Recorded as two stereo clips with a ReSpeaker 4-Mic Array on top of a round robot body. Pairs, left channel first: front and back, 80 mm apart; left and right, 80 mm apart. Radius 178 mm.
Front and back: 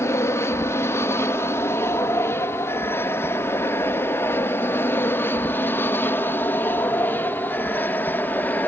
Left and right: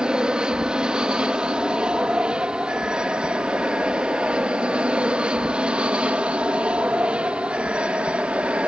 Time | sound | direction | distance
0.0 | an aircraft | 15° right | ?